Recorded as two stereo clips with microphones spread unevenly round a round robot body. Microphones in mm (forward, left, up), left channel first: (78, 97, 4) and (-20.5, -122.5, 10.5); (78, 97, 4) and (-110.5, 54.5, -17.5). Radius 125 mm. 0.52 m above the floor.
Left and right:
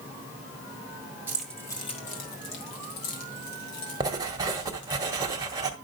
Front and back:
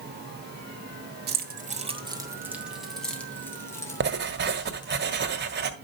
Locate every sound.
1.3 s keys jangling: 165° left, 1.9 m; by 5.0 s 80° left, 5.5 m
4.0 s writing: 170° left, 1.7 m